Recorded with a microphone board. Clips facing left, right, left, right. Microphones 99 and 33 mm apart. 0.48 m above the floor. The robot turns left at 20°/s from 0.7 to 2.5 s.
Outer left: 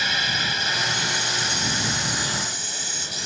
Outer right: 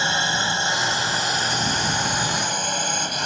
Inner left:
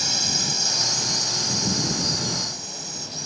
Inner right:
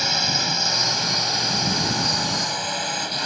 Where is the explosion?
No explosion in this recording.